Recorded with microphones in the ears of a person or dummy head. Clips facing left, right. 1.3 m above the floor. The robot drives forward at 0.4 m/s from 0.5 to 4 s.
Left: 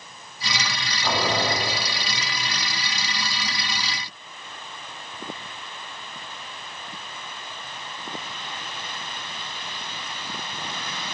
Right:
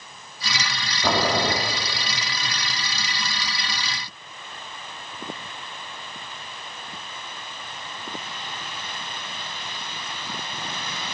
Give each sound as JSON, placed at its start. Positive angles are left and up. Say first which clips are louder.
{"t": 1.0, "sound": "boiling", "louder": "right 2 dB", "side_deg": -50, "distance_m": 1.7}